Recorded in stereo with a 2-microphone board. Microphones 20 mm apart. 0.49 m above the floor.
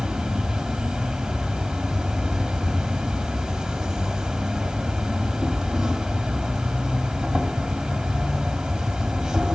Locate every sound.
0.0 s an insect: 25° right (ahead or behind), 1.4 m